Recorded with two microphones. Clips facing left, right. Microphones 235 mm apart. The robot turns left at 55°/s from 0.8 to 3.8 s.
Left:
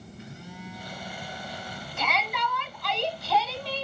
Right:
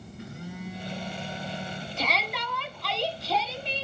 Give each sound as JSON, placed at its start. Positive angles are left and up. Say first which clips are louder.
{"t": 0.2, "sound": "a phone buzzing", "louder": "right 5 dB", "azimuth_deg": -100, "distance_m": 2.5}
{"t": 2.0, "sound": "a shout", "louder": "left 2 dB", "azimuth_deg": -55, "distance_m": 1.5}